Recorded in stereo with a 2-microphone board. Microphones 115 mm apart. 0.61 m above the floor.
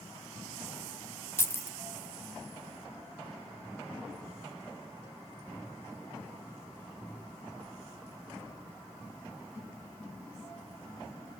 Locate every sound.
1.4 s keys jangling: 20° left (ahead or behind), 0.6 m